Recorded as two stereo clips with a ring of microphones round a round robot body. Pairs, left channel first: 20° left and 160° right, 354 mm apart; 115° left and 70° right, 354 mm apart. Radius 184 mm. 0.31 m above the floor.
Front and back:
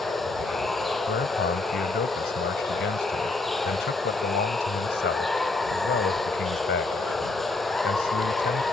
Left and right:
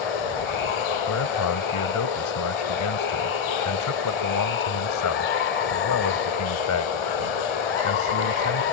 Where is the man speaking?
80° left.